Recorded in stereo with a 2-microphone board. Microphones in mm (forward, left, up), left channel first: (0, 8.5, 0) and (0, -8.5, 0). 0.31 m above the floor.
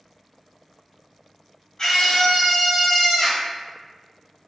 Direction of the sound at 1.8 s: 40° left (ahead or behind).